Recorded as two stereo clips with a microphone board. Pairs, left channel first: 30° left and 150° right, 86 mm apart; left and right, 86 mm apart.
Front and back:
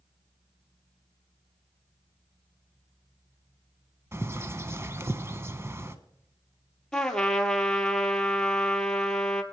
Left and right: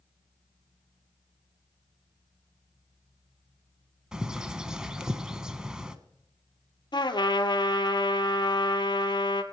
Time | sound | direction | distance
4.1 | a bird | 165° right | 0.6 m
6.9 | a trumpet | 110° left | 0.9 m